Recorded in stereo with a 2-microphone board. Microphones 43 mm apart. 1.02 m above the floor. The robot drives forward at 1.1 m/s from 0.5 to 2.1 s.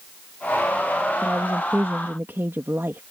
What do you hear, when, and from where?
1.2 s a woman speaking: 55° right (ahead or behind); by 3.0 s 65° right (ahead or behind)